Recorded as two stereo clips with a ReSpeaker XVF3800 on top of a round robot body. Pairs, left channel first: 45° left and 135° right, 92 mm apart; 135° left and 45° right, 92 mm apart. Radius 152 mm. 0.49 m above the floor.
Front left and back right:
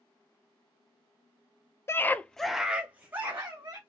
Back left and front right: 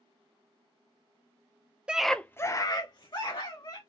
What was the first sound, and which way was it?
A scream, 25° left.